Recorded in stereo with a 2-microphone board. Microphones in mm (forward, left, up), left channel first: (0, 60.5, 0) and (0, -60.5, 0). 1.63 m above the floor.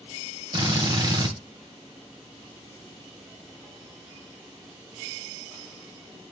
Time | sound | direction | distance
0.5 | a drill | 40° right (ahead or behind) | 1.8 m